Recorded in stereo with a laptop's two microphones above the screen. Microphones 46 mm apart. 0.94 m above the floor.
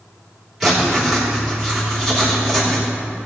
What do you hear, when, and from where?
0.6 s writing: 5° right (ahead or behind), 3 m